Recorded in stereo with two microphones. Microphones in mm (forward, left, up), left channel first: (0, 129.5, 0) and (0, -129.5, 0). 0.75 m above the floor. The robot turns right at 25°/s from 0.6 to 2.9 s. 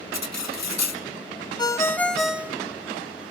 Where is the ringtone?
15° left (ahead or behind), 0.5 m; by 2.6 s 10° right (ahead or behind), 0.5 m.